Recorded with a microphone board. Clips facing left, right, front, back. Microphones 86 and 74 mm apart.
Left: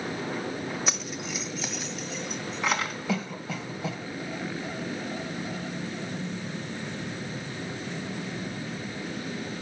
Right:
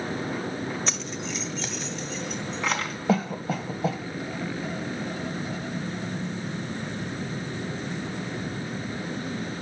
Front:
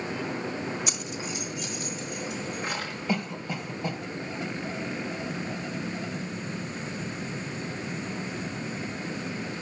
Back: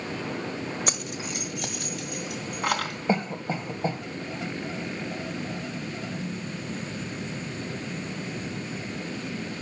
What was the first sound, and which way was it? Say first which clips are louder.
Keys jangling: right 1 dB, back 1 dB; 170° left.